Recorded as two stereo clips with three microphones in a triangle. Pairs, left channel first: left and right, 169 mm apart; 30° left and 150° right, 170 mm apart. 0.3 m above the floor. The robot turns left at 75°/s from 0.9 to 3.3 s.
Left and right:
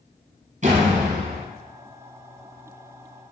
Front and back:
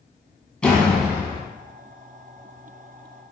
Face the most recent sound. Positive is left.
turn(degrees=125)